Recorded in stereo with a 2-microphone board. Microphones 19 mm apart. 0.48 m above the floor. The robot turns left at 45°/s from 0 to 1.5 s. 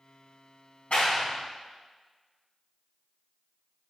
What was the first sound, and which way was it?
A clap, 80° left.